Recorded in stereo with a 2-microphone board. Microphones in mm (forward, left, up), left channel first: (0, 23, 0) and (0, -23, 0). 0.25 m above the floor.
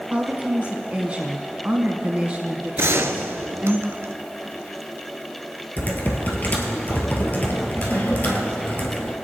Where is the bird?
I don't hear a bird.